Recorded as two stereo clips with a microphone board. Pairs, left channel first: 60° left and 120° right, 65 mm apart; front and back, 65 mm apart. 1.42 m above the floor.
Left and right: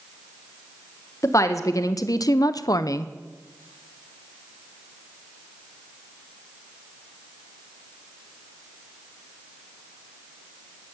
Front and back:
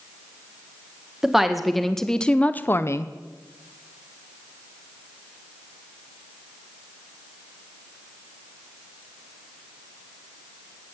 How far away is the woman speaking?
About 1.7 m.